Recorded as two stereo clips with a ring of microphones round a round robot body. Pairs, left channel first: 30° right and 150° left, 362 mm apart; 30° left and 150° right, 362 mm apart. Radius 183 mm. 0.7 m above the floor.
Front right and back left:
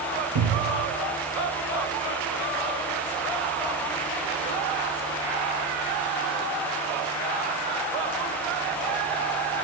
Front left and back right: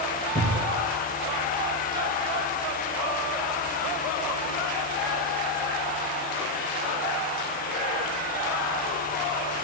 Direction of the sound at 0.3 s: 140° left.